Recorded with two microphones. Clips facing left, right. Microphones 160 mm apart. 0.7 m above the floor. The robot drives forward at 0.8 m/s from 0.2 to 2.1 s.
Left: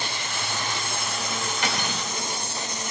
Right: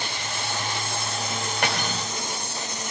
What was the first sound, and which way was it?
Cutlery clinking, 60° right (ahead or behind).